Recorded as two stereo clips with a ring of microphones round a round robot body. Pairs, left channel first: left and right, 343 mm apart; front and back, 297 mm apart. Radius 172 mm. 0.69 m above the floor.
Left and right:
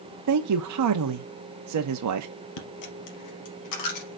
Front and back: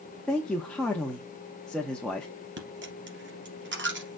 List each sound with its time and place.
0.3 s a man speaking: 85° right, 0.7 m
2.6 s a dropped coin: 130° left, 3 m